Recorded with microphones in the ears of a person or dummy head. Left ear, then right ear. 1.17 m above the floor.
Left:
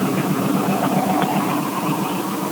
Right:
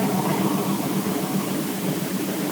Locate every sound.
Only background noise.